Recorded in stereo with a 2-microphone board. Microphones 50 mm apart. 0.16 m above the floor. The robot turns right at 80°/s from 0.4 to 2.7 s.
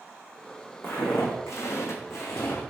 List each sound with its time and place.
0.8 s footsteps: 45° left (ahead or behind), 0.9 m; by 2.6 s 80° left, 0.8 m